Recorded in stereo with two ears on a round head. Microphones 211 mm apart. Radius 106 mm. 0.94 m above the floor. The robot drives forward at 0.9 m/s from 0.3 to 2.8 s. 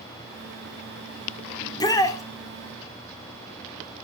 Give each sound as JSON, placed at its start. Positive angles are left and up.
{"t": 1.6, "sound": "a shout", "side_deg": 20, "distance_m": 3.0}